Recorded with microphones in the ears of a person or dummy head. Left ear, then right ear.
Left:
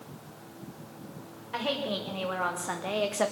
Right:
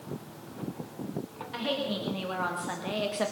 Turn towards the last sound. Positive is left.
turn(degrees=25)  # may be behind; listen again after turning